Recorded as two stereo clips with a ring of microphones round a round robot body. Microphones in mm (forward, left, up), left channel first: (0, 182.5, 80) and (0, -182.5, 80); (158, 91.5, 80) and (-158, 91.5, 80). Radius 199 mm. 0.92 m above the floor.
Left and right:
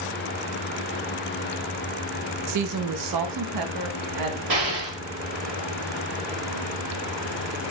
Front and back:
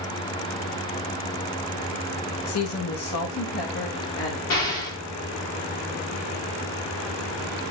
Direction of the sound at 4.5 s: 45° right.